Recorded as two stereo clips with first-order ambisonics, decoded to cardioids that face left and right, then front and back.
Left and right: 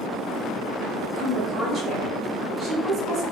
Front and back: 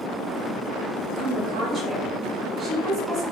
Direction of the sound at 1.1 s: 120° right.